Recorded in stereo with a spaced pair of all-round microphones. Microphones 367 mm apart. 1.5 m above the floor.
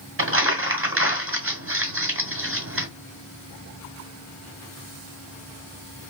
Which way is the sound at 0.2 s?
35° right (ahead or behind).